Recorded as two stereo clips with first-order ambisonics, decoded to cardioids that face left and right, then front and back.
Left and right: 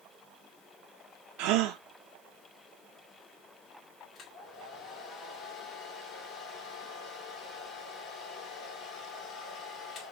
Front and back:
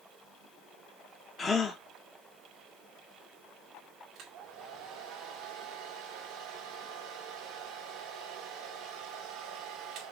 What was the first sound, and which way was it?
A gasp, 70° right.